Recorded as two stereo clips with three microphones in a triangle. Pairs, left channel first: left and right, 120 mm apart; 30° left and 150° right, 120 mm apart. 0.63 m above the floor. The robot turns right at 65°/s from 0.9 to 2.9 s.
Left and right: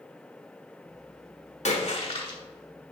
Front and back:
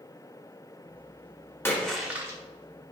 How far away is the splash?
About 1.4 m.